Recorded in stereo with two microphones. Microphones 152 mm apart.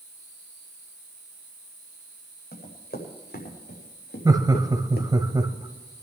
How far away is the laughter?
About 1.3 m.